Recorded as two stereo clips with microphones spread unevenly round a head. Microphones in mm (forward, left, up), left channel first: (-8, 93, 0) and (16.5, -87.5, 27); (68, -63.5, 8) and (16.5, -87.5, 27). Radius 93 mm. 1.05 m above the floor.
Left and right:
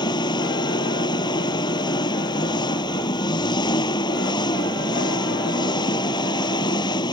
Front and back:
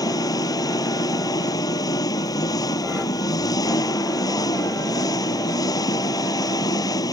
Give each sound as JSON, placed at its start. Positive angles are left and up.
{"t": 0.0, "sound": "an engine running", "azimuth_deg": 30}